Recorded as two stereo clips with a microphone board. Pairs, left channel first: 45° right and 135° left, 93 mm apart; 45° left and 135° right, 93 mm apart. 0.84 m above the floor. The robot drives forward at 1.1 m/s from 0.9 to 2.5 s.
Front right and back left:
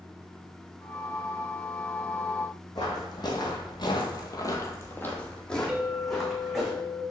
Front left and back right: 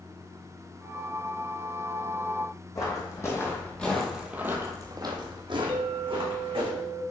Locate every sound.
2.8 s footsteps: 5° right, 2 m; by 6.7 s 140° right, 2.5 m
5.7 s a clink: 140° right, 1.0 m